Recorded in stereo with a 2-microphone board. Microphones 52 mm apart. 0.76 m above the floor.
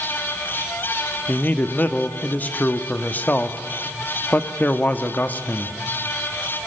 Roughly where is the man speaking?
Left.